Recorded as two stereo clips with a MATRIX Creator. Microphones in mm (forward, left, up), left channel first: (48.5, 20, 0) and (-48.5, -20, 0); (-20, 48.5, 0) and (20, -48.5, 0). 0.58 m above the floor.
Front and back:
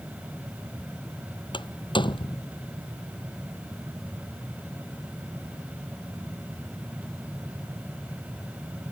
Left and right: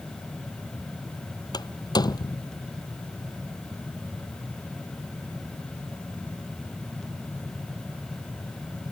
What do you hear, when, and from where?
1.5 s a door slam: 65° left